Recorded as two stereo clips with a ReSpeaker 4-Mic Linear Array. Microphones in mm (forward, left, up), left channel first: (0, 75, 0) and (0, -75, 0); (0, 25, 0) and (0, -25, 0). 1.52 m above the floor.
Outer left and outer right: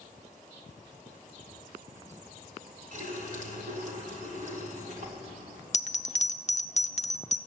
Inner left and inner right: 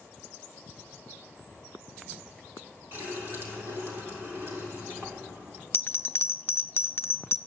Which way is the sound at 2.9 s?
55° right (ahead or behind).